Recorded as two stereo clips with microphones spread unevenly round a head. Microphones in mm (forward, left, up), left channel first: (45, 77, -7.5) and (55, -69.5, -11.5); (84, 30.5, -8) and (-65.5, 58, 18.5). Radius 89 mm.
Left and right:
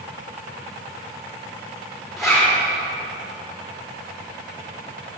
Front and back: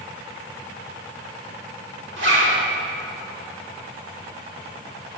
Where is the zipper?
175° right, 3 m.